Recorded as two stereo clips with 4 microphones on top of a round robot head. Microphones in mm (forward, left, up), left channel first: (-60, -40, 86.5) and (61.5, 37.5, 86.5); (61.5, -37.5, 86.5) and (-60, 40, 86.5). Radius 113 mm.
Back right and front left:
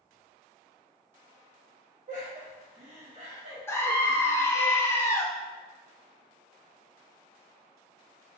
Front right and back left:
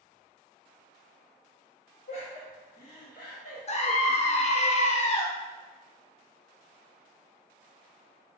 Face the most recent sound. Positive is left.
turn(degrees=-75)